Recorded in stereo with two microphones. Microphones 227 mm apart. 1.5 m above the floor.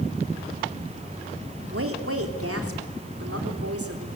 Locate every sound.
1.7 s a woman speaking: 75° right (ahead or behind), 3.5 m; by 4.1 s 80° right, 4 m